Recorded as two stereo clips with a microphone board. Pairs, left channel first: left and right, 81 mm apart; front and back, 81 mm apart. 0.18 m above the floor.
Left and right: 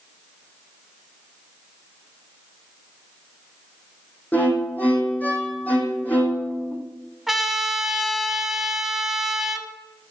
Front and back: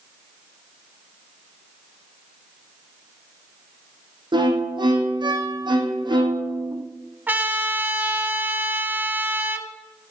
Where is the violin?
160° left, 2 m.